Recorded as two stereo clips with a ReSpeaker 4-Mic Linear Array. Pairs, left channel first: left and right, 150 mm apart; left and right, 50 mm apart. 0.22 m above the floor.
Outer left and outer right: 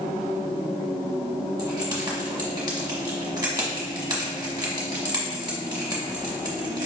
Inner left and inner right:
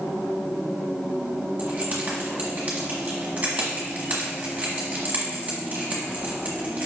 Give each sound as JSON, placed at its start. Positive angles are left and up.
{"t": 1.6, "sound": "keys jangling", "side_deg": -30, "distance_m": 1.1}